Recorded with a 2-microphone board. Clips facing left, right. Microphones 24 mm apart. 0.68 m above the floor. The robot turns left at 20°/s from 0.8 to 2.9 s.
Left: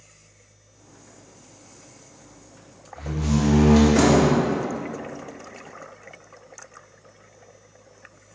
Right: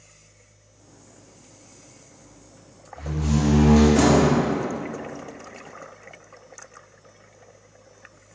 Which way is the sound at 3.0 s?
20° left (ahead or behind).